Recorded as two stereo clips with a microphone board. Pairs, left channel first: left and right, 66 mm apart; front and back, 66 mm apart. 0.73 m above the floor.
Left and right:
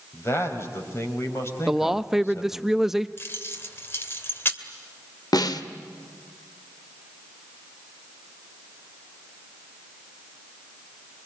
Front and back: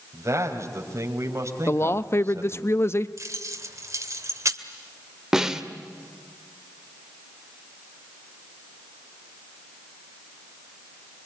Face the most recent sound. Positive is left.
turn(degrees=100)